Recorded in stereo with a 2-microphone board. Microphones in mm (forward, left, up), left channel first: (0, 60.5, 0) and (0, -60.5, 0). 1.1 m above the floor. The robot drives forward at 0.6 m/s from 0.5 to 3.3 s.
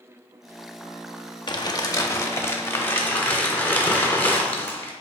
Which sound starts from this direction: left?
Crumpling, at 1.5 s.